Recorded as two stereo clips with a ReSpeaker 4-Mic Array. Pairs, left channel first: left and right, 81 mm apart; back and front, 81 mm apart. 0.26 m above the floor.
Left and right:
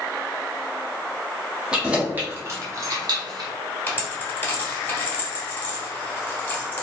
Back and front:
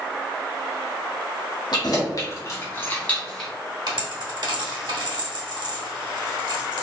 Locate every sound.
1.7 s keys jangling: 170° right, 1.1 m; by 3.5 s 95° right, 1.2 m
3.9 s a dropped coin: 25° left, 1.4 m